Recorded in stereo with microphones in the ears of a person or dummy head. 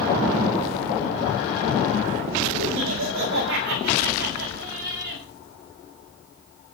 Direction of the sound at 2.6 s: 70° right (ahead or behind).